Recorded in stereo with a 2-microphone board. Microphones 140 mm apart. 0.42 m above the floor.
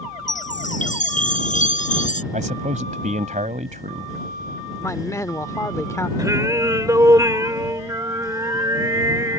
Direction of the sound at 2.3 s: 65° right (ahead or behind).